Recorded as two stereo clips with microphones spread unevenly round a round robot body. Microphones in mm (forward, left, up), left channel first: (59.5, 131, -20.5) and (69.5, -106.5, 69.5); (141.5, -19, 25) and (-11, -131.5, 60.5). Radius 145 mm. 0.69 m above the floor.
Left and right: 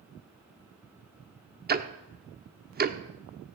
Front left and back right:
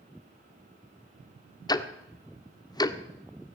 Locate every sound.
1.7 s ticking: 30° right, 1.1 m